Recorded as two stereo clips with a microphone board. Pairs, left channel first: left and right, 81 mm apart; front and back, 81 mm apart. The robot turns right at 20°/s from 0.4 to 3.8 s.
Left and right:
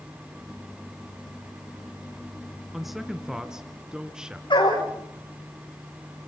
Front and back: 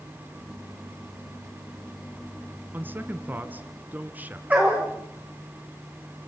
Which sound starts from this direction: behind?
A man speaking, at 2.7 s.